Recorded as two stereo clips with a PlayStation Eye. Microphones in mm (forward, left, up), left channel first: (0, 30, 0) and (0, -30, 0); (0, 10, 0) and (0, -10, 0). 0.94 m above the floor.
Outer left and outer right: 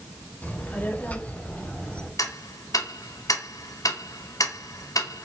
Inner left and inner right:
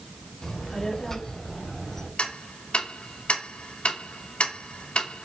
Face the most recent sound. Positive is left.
turn(degrees=80)